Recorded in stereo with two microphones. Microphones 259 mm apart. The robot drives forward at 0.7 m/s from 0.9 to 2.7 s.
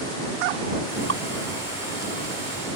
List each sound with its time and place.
1.1 s dripping: 65° right (ahead or behind)